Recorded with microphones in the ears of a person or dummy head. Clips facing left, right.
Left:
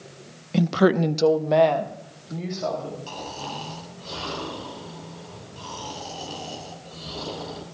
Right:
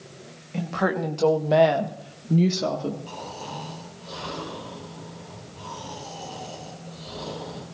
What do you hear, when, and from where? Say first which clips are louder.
0.5 s a woman speaking: left 7 dB; 60° left (ahead or behind), 1.0 m; by 3.0 s 55° right (ahead or behind), 1.5 m
3.1 s snoring: left 1 dB; 65° left (ahead or behind), 8.5 m